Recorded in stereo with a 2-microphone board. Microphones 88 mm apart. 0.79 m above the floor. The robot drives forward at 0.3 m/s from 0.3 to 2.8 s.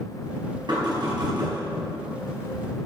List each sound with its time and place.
0.7 s knocking: 55° right (ahead or behind), 5 m; by 1.6 s 50° right (ahead or behind), 5 m